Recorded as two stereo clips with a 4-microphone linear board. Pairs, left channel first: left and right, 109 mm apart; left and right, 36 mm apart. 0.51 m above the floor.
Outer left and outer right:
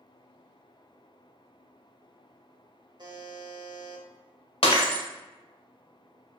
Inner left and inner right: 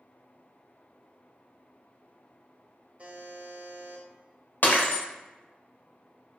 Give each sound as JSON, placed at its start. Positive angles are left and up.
{"t": 3.0, "sound": "a buzzer", "side_deg": -45, "distance_m": 0.5}
{"t": 4.6, "sound": "breaking glass", "side_deg": 70, "distance_m": 0.7}